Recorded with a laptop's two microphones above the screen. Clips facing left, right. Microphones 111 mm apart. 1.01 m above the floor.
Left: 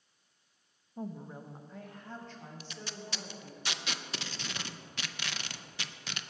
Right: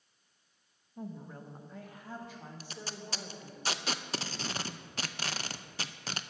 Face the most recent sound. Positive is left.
turn(degrees=-40)  # may be behind; listen again after turning